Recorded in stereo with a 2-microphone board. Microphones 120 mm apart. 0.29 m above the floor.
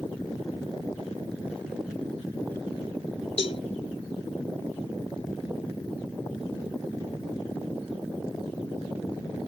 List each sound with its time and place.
3.4 s a cowbell: 55° left (ahead or behind)